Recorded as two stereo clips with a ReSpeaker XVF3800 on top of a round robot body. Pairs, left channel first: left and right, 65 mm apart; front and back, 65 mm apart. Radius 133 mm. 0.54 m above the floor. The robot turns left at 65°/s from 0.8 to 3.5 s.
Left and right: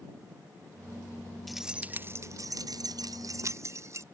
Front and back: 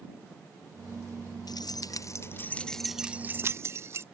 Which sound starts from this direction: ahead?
Keys jangling, at 1.5 s.